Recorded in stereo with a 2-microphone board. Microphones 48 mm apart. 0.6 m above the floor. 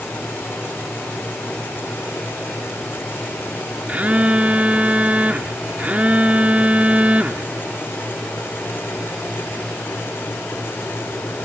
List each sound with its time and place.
3.9 s a phone buzzing: 30° right (ahead or behind)